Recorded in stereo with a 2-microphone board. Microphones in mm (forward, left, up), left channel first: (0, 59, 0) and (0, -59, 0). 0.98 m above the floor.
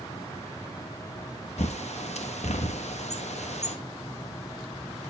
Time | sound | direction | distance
1.6 | a bird | 70° left (ahead or behind) | 1.1 m